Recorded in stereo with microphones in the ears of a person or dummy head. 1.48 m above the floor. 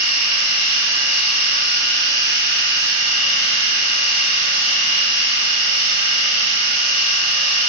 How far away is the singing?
I don't hear singing.